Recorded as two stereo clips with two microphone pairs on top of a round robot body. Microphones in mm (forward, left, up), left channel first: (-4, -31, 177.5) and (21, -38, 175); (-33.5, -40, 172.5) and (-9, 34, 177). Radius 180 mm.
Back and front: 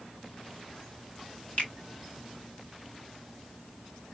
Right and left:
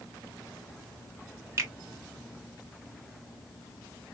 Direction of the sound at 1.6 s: 130° left.